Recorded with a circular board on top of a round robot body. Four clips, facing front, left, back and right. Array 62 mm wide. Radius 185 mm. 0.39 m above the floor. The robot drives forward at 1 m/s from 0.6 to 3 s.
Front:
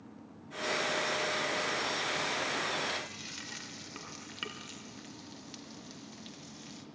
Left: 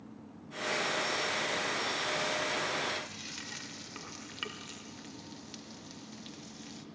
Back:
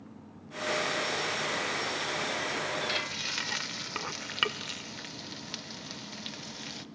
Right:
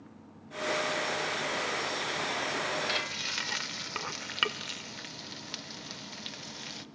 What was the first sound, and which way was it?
Frying, 125° right.